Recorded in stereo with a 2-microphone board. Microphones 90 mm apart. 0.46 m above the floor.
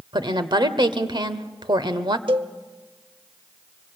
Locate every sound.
0.1 s a woman speaking: 55° right (ahead or behind), 1.3 m
2.3 s a cowbell: 65° right (ahead or behind), 0.8 m